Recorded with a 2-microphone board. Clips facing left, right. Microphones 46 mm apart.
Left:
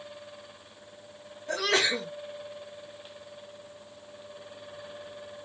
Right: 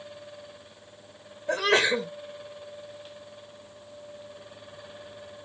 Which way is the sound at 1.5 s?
25° right (ahead or behind).